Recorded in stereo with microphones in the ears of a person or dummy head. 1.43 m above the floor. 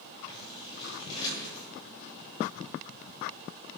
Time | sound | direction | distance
0.3 | scissors | 25° left (ahead or behind) | 7.5 m